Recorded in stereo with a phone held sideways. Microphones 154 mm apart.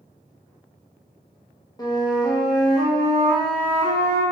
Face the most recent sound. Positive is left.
turn(degrees=25)  # may be behind; listen again after turning